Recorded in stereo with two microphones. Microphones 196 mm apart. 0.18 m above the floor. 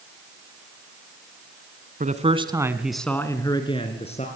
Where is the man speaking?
45° right (ahead or behind), 1.5 m; by 4.3 s 35° left (ahead or behind), 2.5 m.